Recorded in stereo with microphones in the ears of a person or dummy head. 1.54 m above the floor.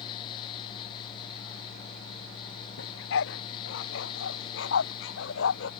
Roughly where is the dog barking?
Left.